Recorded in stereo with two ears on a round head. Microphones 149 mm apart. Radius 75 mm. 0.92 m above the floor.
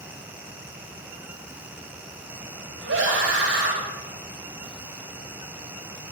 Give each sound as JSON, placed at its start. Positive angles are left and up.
{"t": 2.8, "sound": "a scream", "side_deg": -80, "distance_m": 6.5}